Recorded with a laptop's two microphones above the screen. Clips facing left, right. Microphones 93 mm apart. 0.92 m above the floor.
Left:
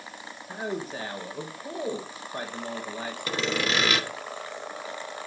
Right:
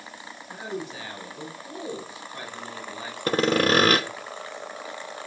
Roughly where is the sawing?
Right.